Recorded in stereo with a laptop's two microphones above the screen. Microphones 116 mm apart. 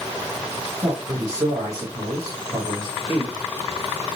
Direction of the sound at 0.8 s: 30° right (ahead or behind).